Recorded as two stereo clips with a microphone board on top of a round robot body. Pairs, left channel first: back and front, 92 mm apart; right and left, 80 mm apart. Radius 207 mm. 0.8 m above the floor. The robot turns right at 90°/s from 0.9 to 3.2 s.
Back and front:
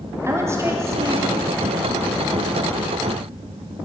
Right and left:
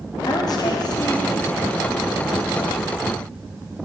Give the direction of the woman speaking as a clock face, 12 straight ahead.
2 o'clock.